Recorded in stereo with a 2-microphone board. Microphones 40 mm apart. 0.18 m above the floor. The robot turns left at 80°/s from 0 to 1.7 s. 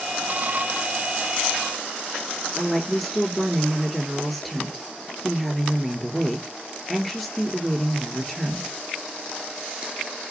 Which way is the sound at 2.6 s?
5° right (ahead or behind).